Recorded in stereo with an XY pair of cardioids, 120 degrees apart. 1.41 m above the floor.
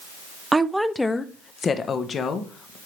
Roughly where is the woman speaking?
Ahead.